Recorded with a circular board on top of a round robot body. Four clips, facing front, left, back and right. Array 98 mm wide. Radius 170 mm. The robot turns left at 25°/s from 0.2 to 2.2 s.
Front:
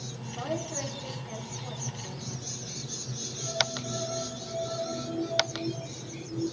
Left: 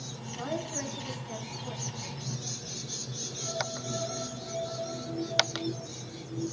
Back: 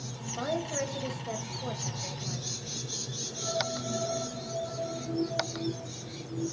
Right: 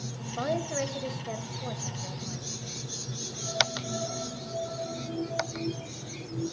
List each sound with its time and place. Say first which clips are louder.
0.4 s a woman speaking: right 5 dB, back 2 dB; 105° right, 4 m; by 2.5 s 150° right, 4 m